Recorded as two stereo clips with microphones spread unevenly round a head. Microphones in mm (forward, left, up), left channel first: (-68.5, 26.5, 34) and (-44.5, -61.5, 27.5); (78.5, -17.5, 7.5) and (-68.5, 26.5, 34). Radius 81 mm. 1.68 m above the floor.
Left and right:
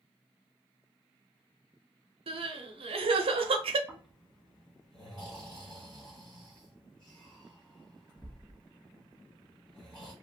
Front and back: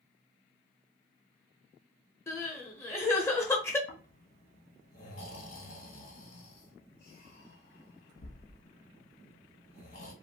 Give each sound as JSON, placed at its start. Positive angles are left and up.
{"t": 2.3, "sound": "crying", "azimuth_deg": -90, "distance_m": 0.7}
{"t": 3.9, "sound": "snoring", "azimuth_deg": 25, "distance_m": 1.4}